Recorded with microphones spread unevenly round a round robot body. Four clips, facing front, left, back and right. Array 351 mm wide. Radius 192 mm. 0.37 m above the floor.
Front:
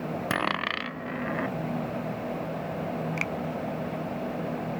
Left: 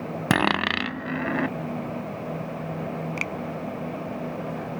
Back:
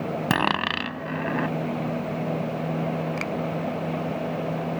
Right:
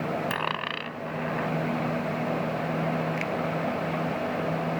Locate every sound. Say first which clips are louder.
0.3 s a dropped coin: left 7 dB, back 6 dB; 110° left
3.2 s a finger snap: right 2 dB, back 3 dB; 95° left